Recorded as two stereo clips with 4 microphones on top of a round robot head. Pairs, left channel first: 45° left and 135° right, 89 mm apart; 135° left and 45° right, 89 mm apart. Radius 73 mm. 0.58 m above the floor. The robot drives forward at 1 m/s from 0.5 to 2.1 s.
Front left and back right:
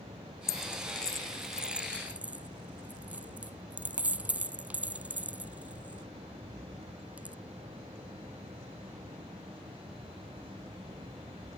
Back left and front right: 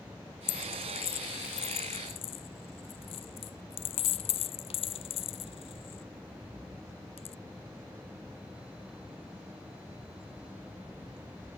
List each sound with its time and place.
0.5 s a dropped coin: 105° left; by 7.4 s 150° left